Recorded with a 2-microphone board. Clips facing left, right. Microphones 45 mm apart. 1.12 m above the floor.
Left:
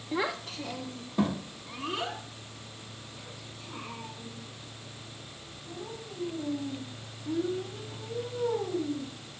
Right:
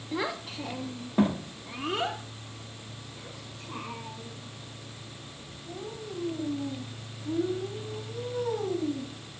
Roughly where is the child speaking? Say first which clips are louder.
Left 1 dB; centre.